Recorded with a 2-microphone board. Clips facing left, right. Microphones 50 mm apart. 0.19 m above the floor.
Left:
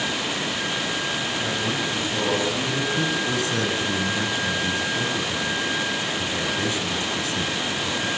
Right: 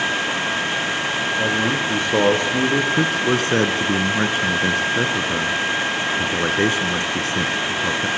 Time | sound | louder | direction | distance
1.4 | a man speaking | right 6 dB | 65° right (ahead or behind) | 5.5 m
3.0 | a man speaking | right 5 dB | 50° right (ahead or behind) | 2 m